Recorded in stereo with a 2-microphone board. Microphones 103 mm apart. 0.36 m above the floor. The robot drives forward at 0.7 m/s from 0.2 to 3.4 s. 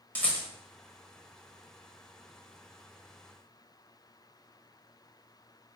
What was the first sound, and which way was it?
A rattle, 15° left (ahead or behind).